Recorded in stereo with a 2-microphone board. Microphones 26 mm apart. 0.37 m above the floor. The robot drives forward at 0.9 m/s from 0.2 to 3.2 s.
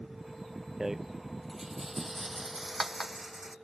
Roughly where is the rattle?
Centre.